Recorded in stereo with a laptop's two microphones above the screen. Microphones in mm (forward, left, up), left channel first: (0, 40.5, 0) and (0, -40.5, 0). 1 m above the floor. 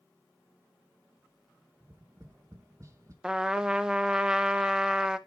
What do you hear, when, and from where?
1.8 s tapping: 40° right (ahead or behind), 1.4 m
3.2 s a trumpet: 10° right (ahead or behind), 0.7 m